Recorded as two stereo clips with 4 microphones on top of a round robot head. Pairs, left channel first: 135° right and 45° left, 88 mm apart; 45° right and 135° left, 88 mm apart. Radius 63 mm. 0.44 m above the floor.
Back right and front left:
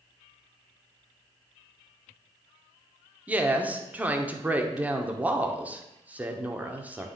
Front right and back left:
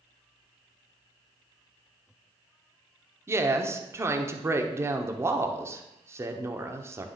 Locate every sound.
3.3 s a woman speaking: 105° left, 0.9 m